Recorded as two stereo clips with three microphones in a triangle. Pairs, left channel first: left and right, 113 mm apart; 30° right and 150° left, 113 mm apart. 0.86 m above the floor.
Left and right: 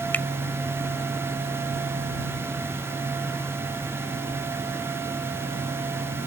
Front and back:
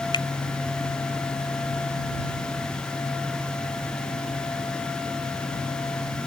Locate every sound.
0.1 s a finger snap: 15° left